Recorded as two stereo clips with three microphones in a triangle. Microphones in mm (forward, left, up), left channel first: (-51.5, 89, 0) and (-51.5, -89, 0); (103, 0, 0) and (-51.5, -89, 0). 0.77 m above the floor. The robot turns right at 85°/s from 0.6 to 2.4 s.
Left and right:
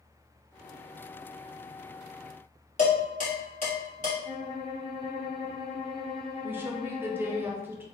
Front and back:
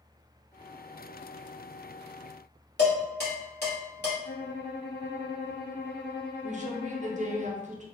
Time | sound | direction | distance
2.8 | dishes clattering | 45° left | 1.9 m
4.2 | a violin | 35° left | 0.6 m
6.4 | a woman speaking | 165° right | 0.7 m